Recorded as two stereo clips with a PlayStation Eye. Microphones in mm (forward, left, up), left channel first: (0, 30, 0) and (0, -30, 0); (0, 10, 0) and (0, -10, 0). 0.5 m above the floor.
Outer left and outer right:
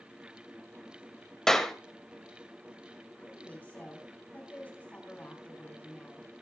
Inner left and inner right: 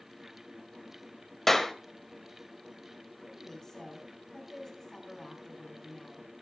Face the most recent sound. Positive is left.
turn(degrees=30)  # may be behind; listen again after turning